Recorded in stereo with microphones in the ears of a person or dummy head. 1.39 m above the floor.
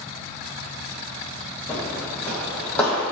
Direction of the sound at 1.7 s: 15° left (ahead or behind).